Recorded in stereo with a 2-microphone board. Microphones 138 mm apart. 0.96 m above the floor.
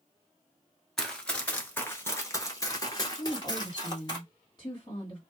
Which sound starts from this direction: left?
A woman speaking, at 3.2 s.